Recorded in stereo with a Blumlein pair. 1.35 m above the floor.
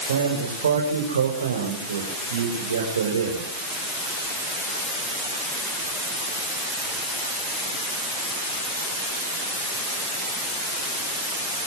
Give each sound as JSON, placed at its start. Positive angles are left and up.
{"t": 0.1, "sound": "a man speaking", "azimuth_deg": -65, "distance_m": 5.5}